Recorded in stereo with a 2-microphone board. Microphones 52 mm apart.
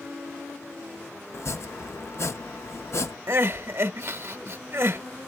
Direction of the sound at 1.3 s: 60° left (ahead or behind).